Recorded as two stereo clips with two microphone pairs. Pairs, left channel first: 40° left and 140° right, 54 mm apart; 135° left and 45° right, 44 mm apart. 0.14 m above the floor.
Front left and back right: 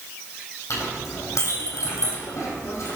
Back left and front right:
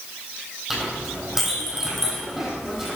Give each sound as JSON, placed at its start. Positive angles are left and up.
{"t": 0.7, "sound": "a clink", "azimuth_deg": 35, "distance_m": 4.5}